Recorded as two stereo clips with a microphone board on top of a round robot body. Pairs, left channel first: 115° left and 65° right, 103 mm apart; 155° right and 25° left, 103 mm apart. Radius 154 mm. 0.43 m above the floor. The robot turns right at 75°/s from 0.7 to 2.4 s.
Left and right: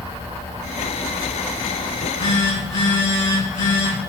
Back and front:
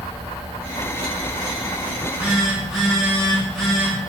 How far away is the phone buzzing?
About 4.5 m.